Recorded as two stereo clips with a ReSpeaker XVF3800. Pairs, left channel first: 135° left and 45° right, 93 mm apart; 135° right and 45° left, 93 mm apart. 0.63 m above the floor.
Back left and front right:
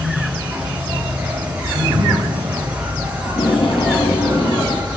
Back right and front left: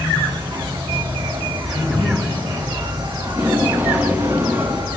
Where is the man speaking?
55° right, 4 m.